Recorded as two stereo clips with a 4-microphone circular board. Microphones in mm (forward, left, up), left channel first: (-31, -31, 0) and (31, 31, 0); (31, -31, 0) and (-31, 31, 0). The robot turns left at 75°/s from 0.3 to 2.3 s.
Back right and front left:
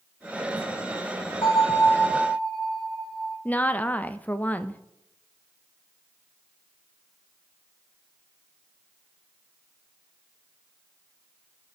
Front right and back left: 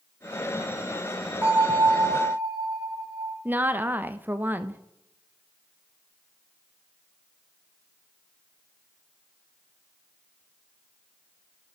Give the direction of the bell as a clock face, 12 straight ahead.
5 o'clock.